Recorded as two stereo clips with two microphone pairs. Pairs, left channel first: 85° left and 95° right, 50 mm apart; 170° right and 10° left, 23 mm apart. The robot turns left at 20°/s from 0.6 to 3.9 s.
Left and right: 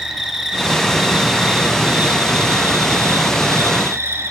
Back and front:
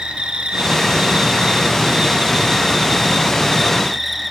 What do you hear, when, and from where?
0.0 s an insect: 5° right, 2.5 m; by 4.3 s 70° right, 2.5 m